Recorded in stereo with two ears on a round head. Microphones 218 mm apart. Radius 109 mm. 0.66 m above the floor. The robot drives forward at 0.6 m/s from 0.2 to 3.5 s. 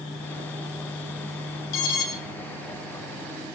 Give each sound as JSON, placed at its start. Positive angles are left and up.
{"t": 1.7, "sound": "an alarm", "side_deg": 75, "distance_m": 5.5}